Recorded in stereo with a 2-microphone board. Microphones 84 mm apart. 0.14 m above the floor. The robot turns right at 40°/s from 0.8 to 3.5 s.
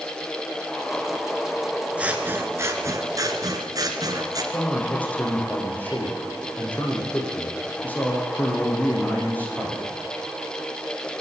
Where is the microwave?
I don't hear a microwave.